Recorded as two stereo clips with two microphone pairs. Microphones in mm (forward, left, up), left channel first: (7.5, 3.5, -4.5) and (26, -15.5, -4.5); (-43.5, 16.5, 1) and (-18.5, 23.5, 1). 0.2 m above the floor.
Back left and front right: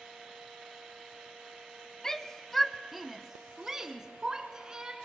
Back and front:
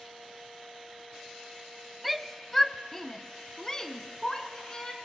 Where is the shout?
105° left, 1.0 m; by 4.9 s 105° right, 2.0 m.